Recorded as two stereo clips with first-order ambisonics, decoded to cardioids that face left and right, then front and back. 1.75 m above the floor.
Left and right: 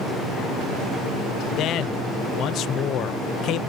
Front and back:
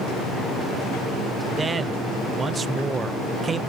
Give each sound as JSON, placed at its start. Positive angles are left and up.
{"t": 1.5, "sound": "a man speaking", "azimuth_deg": 115, "distance_m": 0.6}